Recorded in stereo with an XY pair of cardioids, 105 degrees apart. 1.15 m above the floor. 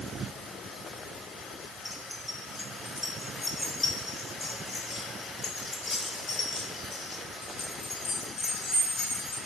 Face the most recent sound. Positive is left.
turn(degrees=55)